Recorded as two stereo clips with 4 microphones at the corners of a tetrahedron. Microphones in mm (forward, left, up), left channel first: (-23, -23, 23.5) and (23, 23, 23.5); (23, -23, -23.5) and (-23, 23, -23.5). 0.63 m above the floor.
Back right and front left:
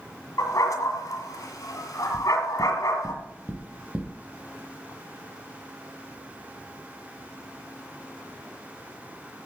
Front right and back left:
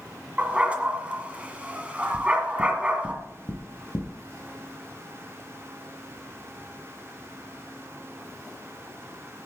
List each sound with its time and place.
0.4 s a dog barking: 155° right, 1.7 m
2.1 s knocking: 20° right, 2.5 m